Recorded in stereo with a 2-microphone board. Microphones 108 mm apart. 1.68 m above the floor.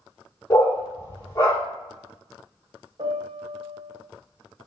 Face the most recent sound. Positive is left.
turn(degrees=-60)  # may be behind; listen again after turning